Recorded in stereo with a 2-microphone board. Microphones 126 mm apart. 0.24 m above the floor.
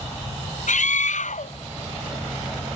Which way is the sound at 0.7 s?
75° left (ahead or behind).